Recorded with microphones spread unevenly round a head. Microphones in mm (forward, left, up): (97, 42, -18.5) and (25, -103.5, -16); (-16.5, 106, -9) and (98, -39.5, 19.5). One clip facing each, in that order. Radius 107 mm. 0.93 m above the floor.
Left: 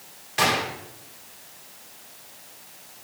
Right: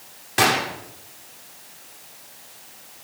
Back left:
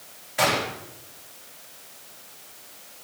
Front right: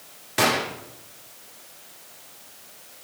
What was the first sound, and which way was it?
A gunshot, 85° right.